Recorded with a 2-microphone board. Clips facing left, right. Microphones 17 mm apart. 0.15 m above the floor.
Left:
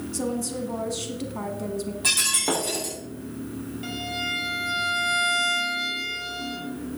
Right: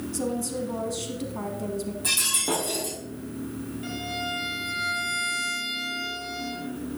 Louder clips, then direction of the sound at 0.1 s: Left 1 dB; 5° left (ahead or behind).